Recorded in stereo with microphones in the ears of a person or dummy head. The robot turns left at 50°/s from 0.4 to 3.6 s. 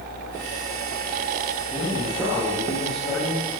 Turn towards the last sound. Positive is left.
turn(degrees=120)